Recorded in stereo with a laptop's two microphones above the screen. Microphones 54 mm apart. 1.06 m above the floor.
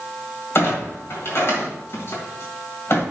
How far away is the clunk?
About 1.8 m.